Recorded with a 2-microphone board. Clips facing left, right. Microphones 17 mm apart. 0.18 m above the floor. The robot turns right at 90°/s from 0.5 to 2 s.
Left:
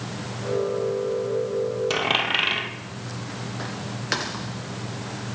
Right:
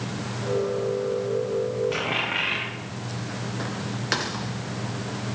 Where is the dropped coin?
80° left, 2 m; by 2.7 s 70° left (ahead or behind), 2 m.